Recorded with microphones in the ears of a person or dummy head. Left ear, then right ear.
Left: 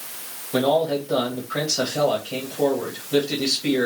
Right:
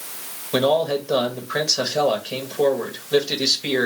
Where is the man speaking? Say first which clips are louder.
Right 1 dB; 55° right (ahead or behind), 1.3 m.